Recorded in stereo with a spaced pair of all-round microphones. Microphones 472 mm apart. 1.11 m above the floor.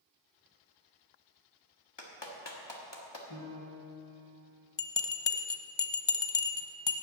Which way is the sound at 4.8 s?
60° left (ahead or behind).